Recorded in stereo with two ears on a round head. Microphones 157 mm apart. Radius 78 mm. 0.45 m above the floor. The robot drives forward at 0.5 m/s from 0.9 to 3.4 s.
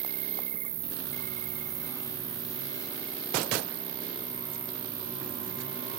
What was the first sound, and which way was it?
An insect, 50° right (ahead or behind).